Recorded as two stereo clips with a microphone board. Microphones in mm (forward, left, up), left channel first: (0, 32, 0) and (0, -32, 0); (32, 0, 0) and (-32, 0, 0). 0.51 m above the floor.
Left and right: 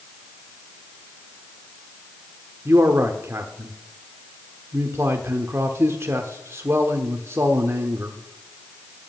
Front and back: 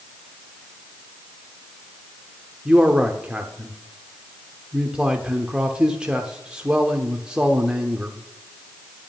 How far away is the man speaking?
About 1.0 m.